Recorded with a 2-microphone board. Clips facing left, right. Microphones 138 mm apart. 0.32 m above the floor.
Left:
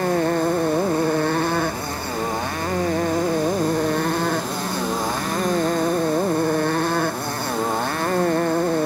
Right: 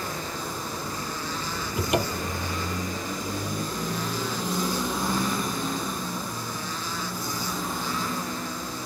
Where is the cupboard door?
85° right.